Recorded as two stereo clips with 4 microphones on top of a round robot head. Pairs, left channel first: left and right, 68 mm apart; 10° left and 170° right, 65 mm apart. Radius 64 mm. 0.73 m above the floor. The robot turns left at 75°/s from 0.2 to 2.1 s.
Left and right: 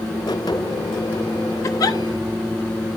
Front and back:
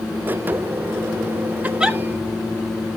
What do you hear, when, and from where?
1.6 s a giggle: 130° left, 1.5 m; by 2.0 s 105° left, 1.5 m